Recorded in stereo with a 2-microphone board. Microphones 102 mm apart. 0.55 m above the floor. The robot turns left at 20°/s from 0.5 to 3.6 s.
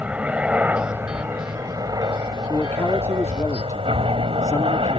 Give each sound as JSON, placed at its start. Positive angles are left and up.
{"t": 0.0, "sound": "a helicopter", "side_deg": -15}
{"t": 2.5, "sound": "a man speaking", "side_deg": 15}